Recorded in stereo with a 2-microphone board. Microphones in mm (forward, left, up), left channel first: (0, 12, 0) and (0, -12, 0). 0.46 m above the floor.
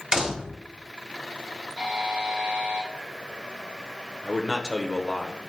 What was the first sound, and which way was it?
A door slam, 30° right (ahead or behind).